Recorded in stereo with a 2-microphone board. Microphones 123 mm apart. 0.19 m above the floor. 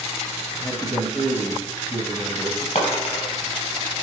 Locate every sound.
0.6 s a man speaking: 20° left (ahead or behind), 1.2 m
2.8 s a dropped coin: 60° left (ahead or behind), 2 m